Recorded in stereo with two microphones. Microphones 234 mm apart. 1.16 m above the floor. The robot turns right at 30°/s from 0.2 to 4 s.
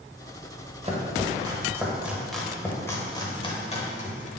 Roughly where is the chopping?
Right.